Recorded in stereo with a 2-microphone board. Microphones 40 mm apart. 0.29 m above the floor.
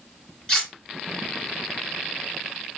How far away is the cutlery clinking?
About 1.6 m.